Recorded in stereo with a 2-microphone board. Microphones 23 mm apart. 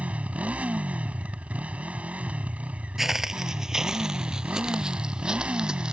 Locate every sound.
0.0 s a motorcycle: 80° right
3.0 s footsteps: 20° right (ahead or behind); by 5.9 s 40° right (ahead or behind)